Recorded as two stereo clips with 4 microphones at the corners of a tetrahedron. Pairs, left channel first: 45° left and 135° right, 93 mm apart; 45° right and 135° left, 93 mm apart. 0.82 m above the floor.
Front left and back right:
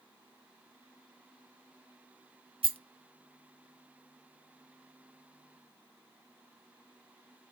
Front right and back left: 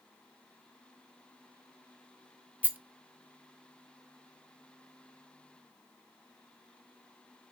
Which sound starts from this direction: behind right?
A rattle, at 2.6 s.